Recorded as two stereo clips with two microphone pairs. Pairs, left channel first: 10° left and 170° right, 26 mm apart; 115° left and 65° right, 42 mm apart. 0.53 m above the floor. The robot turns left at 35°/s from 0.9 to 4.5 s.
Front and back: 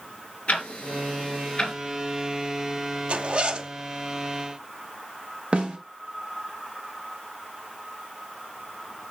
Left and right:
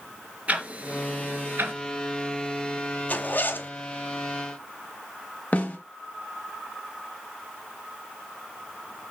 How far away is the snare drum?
About 2.5 m.